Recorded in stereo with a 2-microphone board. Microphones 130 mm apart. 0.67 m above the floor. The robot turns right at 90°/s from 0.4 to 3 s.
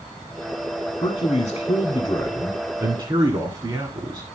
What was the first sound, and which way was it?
A man speaking, 45° left.